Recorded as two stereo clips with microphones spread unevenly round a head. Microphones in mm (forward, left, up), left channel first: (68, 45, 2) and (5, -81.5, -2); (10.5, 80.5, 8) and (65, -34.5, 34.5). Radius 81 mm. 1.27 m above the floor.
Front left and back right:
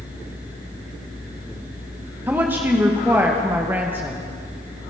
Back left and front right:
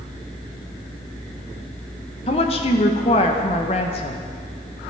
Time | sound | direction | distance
2.3 | a woman speaking | 165° left | 1.2 m